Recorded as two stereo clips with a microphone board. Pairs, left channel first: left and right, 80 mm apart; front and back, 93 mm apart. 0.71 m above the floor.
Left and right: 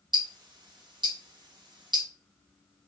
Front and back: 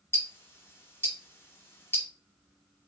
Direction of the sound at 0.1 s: 65° right.